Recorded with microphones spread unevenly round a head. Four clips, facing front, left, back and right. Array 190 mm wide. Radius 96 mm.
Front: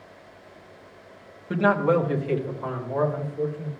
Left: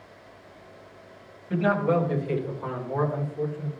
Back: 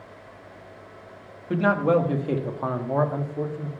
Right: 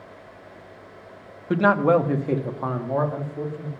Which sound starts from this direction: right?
A man speaking, at 1.5 s.